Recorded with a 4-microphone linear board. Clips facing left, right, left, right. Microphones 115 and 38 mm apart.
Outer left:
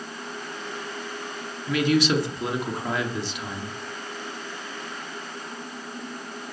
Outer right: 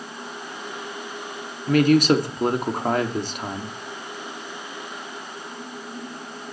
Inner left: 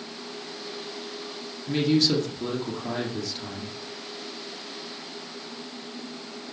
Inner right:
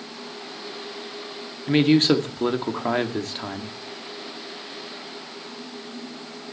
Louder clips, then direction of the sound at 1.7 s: Outer right 5 dB, inner right 5 dB; 50° right (ahead or behind).